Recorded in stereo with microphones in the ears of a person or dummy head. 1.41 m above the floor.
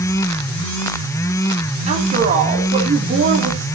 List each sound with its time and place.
1.9 s a woman speaking: 30° right (ahead or behind), 2.5 m